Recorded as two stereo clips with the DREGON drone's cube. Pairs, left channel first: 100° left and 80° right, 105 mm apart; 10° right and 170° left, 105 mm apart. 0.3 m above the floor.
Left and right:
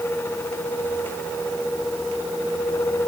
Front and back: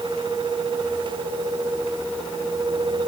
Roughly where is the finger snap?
I don't hear a finger snap.